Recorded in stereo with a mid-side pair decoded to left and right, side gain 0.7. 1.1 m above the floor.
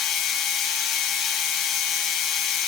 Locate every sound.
0.0 s a machine running: 60° left, 7 m